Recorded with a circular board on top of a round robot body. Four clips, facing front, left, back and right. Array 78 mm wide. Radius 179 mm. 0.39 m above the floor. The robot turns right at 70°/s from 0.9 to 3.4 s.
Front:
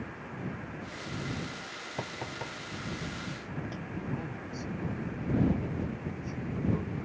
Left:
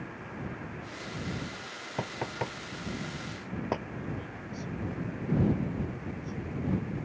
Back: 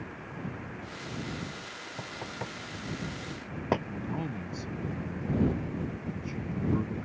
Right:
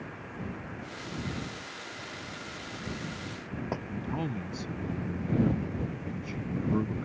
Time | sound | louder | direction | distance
2.0 | knocking | left 7 dB, front 1 dB | 65° left | ?
3.9 | a man speaking | right 5 dB, back 2 dB | 110° right | ?